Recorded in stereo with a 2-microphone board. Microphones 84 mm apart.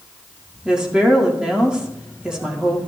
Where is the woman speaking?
10° right (ahead or behind), 1.8 m.